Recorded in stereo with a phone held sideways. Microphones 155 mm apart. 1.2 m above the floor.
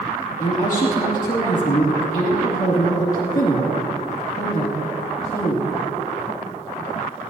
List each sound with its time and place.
0.4 s a woman speaking: 55° left (ahead or behind), 2.5 m